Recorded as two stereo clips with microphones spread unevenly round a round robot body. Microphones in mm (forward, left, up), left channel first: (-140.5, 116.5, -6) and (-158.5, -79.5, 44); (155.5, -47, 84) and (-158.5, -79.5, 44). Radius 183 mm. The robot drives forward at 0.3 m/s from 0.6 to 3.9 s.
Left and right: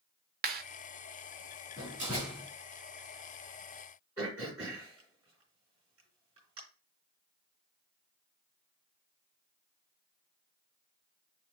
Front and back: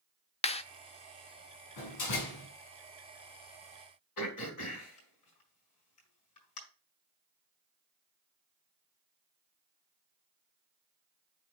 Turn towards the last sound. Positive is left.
turn(degrees=-15)